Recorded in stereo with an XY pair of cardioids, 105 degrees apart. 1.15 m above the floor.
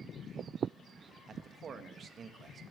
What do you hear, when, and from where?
1.3 s a man speaking: 50° right, 1.3 m